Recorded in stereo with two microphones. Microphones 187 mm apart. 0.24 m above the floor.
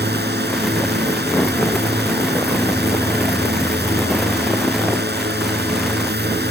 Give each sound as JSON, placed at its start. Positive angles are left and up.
{"t": 0.0, "sound": "a drone", "side_deg": -65}